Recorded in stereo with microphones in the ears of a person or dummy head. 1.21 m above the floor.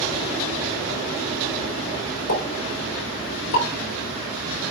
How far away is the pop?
About 4.5 m.